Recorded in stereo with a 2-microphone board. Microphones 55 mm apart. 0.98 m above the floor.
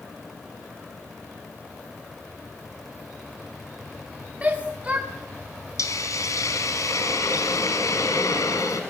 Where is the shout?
25° right (ahead or behind), 2.0 m.